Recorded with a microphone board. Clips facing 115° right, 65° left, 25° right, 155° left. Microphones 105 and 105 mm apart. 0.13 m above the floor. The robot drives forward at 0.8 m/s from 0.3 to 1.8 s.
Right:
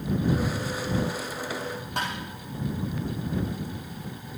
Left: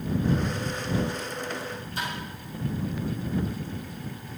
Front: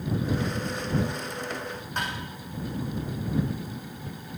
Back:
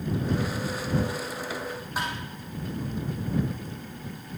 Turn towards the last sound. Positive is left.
turn(degrees=-120)